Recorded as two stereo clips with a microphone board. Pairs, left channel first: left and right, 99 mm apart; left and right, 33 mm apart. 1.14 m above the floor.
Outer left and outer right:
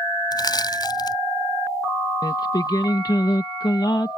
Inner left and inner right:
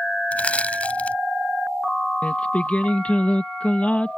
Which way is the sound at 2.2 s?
40° left (ahead or behind).